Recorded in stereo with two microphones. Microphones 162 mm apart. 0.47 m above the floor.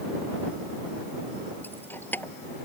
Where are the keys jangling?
10° left (ahead or behind).